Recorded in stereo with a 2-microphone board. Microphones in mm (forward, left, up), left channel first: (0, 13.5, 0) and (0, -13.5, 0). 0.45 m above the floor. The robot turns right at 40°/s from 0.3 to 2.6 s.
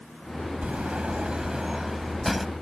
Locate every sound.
0.6 s a sliding door: 75° right; by 2.5 s straight ahead